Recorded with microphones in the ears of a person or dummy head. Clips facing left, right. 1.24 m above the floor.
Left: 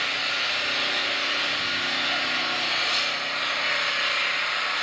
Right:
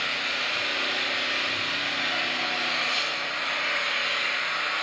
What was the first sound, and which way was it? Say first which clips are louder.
An engine running: left 1 dB; 10° left (ahead or behind).